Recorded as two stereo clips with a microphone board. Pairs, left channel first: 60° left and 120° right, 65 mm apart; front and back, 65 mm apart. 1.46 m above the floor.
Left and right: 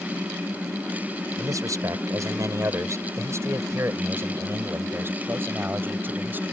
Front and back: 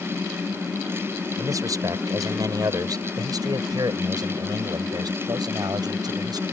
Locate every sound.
1.4 s a man speaking: 150° right; by 6.4 s straight behind